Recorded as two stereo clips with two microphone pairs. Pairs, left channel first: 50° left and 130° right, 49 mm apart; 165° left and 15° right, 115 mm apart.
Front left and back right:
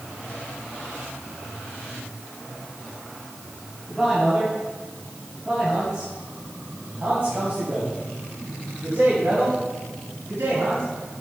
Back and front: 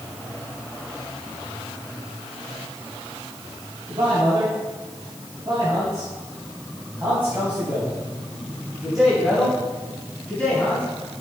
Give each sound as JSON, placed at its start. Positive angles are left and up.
{"t": 3.9, "sound": "a man speaking", "azimuth_deg": -45, "distance_m": 3.5}